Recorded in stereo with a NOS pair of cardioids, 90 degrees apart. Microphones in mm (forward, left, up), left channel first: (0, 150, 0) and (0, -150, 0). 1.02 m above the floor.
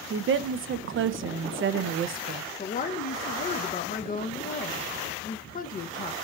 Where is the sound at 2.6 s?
30° left, 0.5 m.